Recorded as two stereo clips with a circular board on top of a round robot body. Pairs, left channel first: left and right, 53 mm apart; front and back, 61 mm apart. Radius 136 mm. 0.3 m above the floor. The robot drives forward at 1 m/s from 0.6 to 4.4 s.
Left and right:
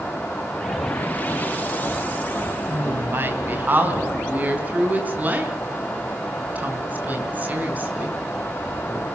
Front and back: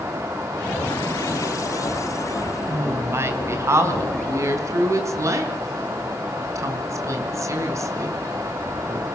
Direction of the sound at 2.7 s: 130° right.